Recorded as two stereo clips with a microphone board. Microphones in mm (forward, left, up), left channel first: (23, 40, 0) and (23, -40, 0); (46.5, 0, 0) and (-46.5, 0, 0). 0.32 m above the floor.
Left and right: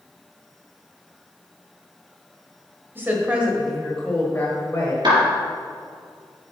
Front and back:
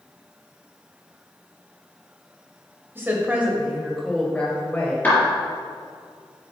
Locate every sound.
3.0 s a woman speaking: 130° right, 1.6 m; by 4.9 s 55° left, 1.8 m
5.0 s a clap: 70° right, 3.5 m